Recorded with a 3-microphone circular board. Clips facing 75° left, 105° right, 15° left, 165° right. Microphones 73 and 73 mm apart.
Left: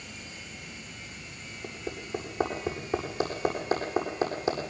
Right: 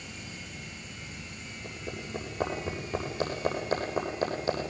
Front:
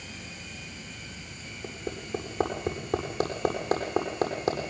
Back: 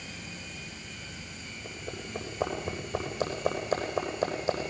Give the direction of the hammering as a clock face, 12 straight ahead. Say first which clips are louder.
Left 2 dB, front 4 dB; 12 o'clock.